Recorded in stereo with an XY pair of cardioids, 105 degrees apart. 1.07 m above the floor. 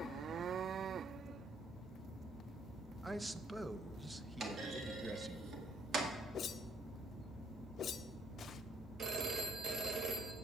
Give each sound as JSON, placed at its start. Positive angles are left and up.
{"t": 3.0, "sound": "a man speaking", "azimuth_deg": -15, "distance_m": 0.6}
{"t": 4.4, "sound": "a clunk", "azimuth_deg": -50, "distance_m": 1.8}
{"t": 6.3, "sound": "a whoosh", "azimuth_deg": 55, "distance_m": 0.6}
{"t": 9.0, "sound": "a phone ringing", "azimuth_deg": -50, "distance_m": 1.3}